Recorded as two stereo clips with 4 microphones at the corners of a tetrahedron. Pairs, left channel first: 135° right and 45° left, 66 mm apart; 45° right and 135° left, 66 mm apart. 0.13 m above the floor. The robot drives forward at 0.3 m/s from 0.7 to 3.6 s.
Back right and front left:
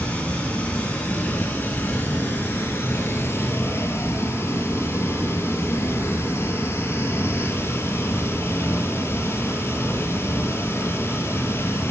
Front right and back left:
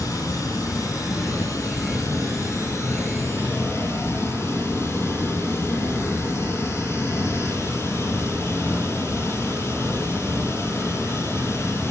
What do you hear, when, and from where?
0.0 s running water: 70° right, 2.5 m; by 11.9 s 90° right, 2.5 m